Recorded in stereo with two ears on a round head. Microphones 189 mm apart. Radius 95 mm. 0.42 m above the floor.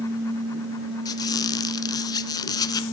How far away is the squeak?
About 1.1 m.